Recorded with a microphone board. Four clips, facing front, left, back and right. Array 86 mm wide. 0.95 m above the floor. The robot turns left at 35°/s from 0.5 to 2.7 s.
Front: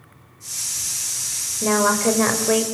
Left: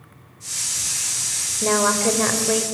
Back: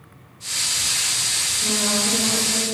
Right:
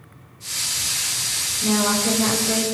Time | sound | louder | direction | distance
1.6 | a woman speaking | left 2 dB, front 8 dB | 50° left | 4.5 m